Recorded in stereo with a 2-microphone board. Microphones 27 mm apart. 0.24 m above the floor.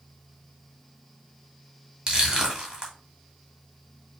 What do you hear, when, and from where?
2.1 s crushing: 20° right (ahead or behind), 1.8 m